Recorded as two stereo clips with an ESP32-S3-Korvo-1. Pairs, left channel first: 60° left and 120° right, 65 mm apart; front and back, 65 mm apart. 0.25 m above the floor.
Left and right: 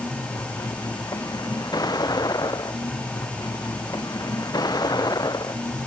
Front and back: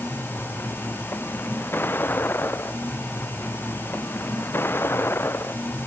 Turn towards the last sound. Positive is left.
turn(degrees=55)